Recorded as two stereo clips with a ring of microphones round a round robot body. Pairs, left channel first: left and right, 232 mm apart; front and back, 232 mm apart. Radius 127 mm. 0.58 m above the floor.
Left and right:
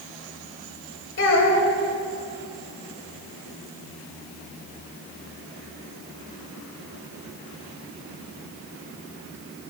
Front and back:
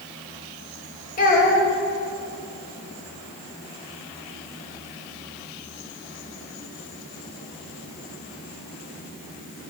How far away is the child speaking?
About 1.8 m.